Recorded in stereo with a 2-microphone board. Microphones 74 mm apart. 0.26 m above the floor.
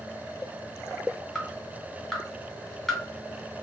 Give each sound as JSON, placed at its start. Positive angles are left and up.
{"t": 1.4, "sound": "dripping", "side_deg": 0, "distance_m": 1.5}